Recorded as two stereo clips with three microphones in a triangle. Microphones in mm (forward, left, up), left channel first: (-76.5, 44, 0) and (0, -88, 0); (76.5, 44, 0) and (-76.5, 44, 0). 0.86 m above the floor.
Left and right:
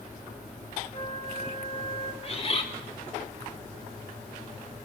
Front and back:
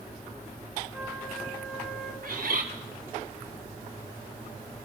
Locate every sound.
0.9 s a flute: 95° left, 1.1 m
2.2 s a bird: 170° left, 1.5 m